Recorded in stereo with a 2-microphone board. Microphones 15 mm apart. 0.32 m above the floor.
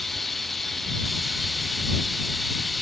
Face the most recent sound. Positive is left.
turn(degrees=10)  # may be behind; listen again after turning